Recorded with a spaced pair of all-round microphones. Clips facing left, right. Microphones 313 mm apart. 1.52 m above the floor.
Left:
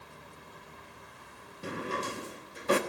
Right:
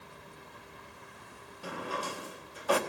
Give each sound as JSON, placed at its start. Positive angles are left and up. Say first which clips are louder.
{"t": 1.6, "sound": "a drawer", "louder": "left 3 dB", "side_deg": 30, "distance_m": 1.2}